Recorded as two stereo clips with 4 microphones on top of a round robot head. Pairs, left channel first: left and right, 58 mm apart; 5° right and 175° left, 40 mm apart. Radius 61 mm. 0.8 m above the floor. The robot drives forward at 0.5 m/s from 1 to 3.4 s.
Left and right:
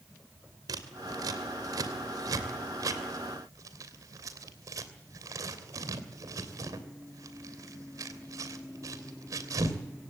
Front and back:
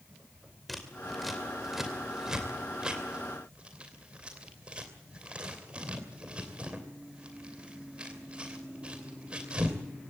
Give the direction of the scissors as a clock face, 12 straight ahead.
3 o'clock.